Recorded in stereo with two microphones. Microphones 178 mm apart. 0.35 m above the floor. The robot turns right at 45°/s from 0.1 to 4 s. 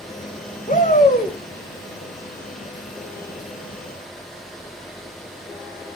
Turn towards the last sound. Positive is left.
turn(degrees=-105)